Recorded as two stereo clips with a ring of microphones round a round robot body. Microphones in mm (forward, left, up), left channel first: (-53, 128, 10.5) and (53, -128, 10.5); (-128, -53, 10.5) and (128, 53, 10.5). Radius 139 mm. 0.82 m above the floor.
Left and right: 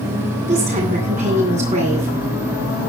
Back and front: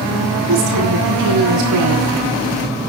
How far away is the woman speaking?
About 10 m.